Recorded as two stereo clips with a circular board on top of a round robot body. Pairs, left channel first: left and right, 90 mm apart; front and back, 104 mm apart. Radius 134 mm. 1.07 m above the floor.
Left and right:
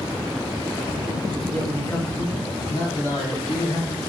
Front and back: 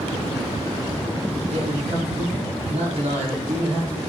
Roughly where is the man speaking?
Behind.